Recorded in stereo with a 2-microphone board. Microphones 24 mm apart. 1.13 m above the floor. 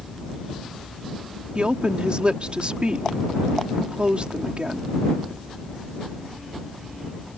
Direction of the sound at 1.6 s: 45° right (ahead or behind).